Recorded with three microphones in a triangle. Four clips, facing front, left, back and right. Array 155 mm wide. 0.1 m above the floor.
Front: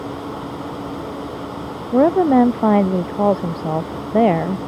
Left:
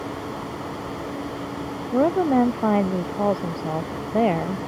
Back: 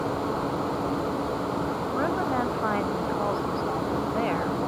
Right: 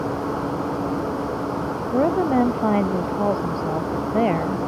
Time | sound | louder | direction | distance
1.9 | a woman speaking | even, front 15 dB | straight ahead | ?